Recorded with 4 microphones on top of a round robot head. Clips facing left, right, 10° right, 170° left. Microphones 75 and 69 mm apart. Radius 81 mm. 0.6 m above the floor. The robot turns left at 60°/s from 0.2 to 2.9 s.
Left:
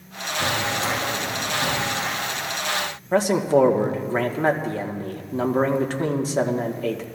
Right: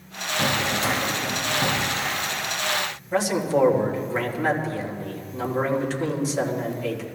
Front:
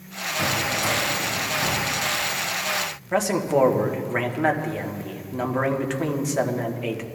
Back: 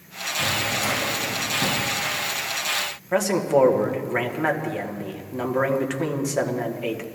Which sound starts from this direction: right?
A drawer, at 0.4 s.